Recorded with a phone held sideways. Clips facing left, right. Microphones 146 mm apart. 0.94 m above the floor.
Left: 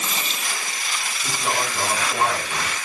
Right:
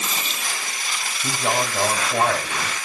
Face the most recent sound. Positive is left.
turn(degrees=-60)  # may be behind; listen again after turning